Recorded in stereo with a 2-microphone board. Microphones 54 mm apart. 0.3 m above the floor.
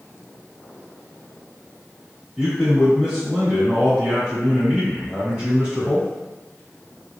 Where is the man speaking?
15° right (ahead or behind), 1.2 m.